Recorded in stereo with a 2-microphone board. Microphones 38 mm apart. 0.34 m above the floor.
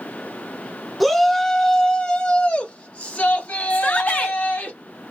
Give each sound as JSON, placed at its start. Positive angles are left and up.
{"t": 1.0, "sound": "a shout", "side_deg": 0, "distance_m": 1.2}
{"t": 3.7, "sound": "a shout", "side_deg": 45, "distance_m": 1.8}